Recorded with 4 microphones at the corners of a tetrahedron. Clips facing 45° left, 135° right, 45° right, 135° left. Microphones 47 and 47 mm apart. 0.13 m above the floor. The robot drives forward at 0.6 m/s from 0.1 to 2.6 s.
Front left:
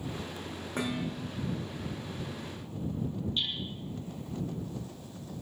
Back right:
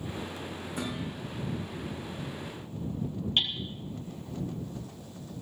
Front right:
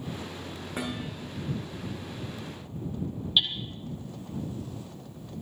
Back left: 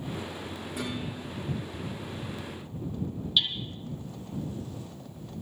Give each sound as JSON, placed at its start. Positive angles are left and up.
{"t": 0.8, "sound": "dishes clattering", "azimuth_deg": 5, "distance_m": 8.5}
{"t": 3.4, "sound": "hammering", "azimuth_deg": -115, "distance_m": 2.0}